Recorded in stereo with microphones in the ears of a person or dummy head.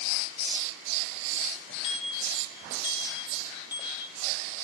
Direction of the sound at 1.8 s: 35° left (ahead or behind).